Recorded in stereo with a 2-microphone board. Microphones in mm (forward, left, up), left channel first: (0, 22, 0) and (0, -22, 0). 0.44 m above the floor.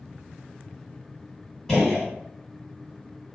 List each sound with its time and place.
1.7 s a gunshot: 10° left (ahead or behind), 1.9 m